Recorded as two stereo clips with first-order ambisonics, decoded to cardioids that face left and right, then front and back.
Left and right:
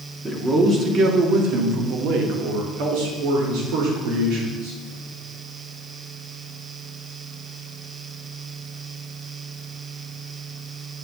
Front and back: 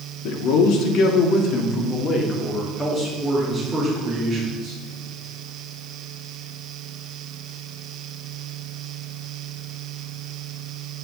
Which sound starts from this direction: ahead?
A man speaking, at 0.2 s.